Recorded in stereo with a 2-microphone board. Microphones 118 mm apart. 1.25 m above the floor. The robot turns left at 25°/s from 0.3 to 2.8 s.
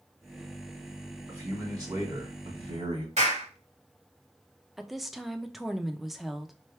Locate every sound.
1.3 s a man speaking: 25° right, 2.5 m; by 3.1 s 65° right, 2.5 m
3.2 s a clap: 85° right, 3 m
4.8 s a woman speaking: centre (ahead or behind), 0.7 m